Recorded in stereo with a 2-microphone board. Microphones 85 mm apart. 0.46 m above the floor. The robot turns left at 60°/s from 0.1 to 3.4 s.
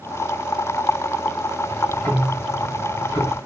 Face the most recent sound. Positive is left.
turn(degrees=65)